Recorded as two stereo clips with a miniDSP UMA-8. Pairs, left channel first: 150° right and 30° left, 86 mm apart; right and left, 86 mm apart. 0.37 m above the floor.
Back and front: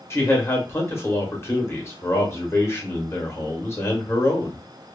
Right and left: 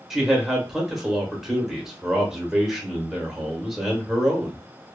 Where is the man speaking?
175° left, 0.9 m.